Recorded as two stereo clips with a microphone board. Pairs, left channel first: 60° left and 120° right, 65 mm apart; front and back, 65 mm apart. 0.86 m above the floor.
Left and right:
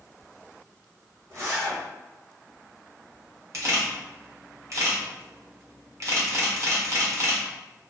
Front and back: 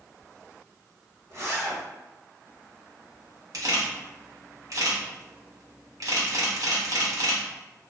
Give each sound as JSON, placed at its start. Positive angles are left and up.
{"t": 1.3, "sound": "a zipper", "azimuth_deg": -145, "distance_m": 1.3}
{"t": 3.5, "sound": "a camera shutter", "azimuth_deg": -155, "distance_m": 1.2}